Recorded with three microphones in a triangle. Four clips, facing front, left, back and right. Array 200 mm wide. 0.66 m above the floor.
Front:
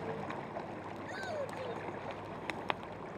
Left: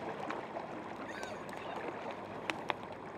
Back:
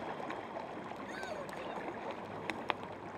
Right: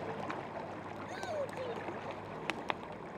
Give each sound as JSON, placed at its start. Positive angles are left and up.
{"t": 1.0, "sound": "a shout", "azimuth_deg": -60}